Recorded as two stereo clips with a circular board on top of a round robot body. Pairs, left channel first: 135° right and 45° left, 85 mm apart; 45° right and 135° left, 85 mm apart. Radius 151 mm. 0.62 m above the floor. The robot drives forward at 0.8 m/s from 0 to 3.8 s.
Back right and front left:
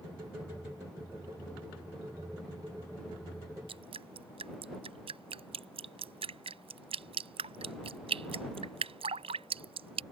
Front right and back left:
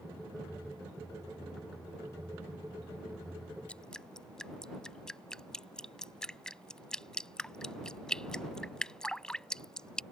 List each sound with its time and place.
3.7 s dripping: 35° left; by 10.0 s 40° left